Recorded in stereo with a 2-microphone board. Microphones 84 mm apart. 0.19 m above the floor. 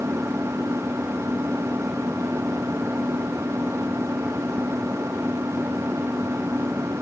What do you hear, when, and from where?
0.0 s an engine running: 30° right (ahead or behind)